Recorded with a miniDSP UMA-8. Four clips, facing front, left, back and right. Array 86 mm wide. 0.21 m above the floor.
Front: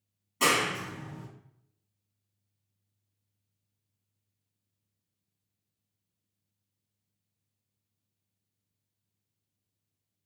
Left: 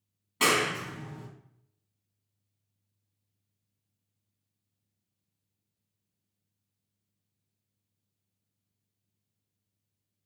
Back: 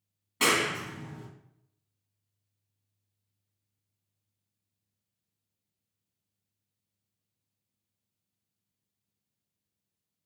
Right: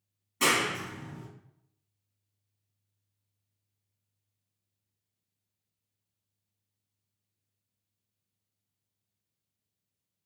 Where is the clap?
125° left, 1.4 m.